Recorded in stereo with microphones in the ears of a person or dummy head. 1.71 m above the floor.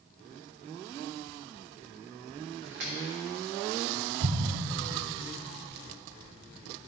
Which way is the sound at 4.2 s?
70° right (ahead or behind).